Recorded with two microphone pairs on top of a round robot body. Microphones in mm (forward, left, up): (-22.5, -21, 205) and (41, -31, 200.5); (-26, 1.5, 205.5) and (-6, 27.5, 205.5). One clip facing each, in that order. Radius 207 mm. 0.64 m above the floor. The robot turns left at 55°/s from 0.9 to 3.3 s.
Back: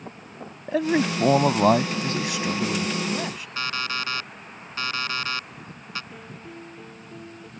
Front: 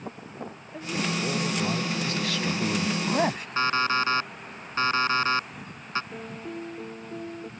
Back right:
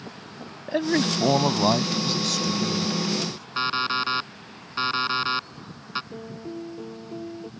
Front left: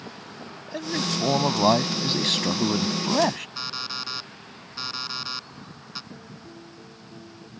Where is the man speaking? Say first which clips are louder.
Back 9 dB, back right 5 dB; 175° left; by 3.5 s 45° left.